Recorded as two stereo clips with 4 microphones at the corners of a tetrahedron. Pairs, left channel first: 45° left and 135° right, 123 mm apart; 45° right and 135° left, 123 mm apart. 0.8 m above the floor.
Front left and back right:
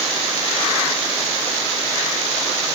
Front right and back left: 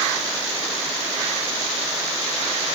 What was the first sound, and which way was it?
Only background noise.